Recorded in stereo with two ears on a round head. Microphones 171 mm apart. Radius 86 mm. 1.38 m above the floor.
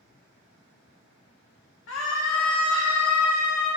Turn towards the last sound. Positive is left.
turn(degrees=85)